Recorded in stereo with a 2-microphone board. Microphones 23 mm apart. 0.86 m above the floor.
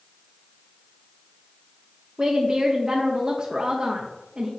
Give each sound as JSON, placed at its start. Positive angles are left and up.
{"t": 2.2, "sound": "a woman speaking", "side_deg": -30, "distance_m": 0.6}